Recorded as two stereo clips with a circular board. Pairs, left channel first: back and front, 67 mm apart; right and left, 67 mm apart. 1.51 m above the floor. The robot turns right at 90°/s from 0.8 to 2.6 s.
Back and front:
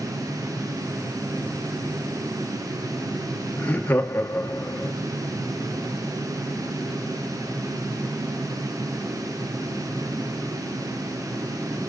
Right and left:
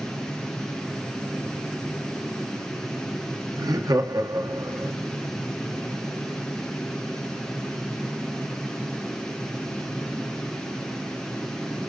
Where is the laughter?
115° left, 1.2 m.